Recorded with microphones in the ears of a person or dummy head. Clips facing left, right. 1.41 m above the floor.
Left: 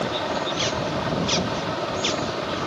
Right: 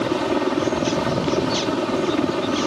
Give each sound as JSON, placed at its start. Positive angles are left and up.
{"t": 0.0, "sound": "a helicopter", "side_deg": -50}